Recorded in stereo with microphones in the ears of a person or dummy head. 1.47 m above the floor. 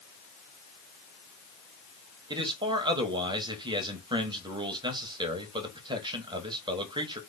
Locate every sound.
2.3 s a man speaking: 20° right (ahead or behind), 1.3 m